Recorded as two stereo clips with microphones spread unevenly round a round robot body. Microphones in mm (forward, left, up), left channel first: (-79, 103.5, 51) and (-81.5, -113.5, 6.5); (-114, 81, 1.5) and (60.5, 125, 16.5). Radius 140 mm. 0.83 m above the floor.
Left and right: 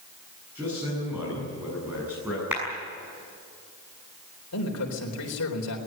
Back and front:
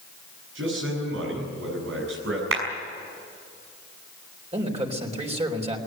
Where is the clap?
5° right, 6.5 m.